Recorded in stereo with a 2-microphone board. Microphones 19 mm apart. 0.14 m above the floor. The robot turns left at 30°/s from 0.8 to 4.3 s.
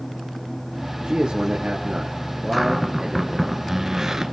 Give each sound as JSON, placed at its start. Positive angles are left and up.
{"t": 1.0, "sound": "a man speaking", "azimuth_deg": -75, "distance_m": 2.5}
{"t": 2.5, "sound": "a cupboard door", "azimuth_deg": 10, "distance_m": 2.0}